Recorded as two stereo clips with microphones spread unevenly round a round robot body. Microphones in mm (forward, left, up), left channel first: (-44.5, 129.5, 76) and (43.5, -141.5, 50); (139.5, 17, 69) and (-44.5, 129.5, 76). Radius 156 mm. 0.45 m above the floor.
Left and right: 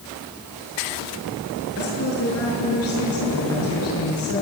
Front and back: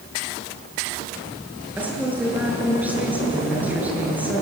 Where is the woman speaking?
65° left, 7 m.